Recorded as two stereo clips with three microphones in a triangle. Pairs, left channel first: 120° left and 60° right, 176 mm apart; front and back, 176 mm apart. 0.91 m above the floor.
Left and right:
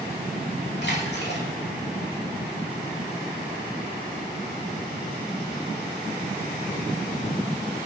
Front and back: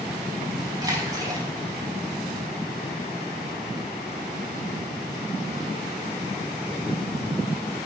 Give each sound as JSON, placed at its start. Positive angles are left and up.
{"t": 0.8, "sound": "a splash", "azimuth_deg": 110, "distance_m": 4.5}